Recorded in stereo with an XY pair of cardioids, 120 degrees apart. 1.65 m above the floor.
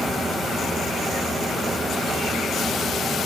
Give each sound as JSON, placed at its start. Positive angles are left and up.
{"t": 0.0, "sound": "a fan", "azimuth_deg": -15, "distance_m": 1.7}